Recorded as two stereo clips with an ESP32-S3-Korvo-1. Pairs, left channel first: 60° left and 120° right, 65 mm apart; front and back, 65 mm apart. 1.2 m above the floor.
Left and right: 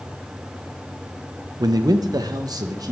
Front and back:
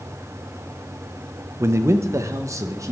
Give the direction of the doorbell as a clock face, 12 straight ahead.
I don't hear a doorbell.